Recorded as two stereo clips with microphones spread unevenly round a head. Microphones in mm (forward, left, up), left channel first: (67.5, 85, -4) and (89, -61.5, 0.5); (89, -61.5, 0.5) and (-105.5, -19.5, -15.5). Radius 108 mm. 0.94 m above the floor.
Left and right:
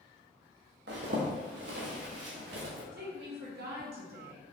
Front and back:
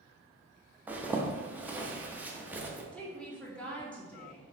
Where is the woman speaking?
95° right, 0.9 m.